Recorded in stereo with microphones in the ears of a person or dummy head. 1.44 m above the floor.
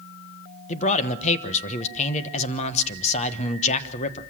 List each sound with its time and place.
0.7 s a man speaking: 40° left (ahead or behind), 1.2 m